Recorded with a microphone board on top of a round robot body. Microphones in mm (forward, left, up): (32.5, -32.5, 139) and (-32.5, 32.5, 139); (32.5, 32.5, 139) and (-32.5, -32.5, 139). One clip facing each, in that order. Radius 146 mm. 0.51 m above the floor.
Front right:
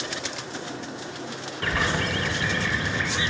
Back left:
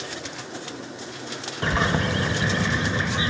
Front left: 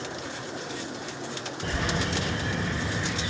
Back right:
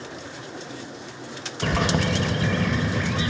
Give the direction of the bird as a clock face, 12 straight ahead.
5 o'clock.